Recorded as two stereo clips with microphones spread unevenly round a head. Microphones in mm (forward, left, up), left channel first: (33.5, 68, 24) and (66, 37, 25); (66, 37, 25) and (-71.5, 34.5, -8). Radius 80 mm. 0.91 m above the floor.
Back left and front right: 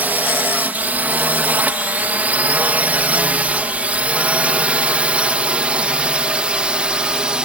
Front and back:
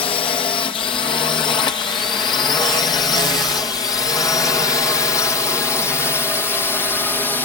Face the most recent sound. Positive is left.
turn(degrees=-90)